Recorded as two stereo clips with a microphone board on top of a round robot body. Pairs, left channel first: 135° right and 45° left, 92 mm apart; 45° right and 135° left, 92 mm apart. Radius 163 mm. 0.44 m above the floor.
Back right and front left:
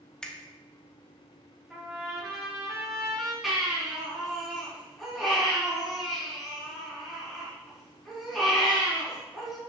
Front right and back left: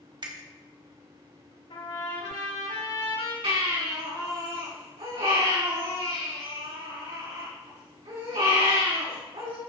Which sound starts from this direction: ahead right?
A trumpet, at 1.7 s.